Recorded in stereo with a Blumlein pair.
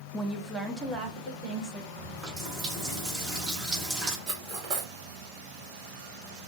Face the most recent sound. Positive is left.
turn(degrees=-25)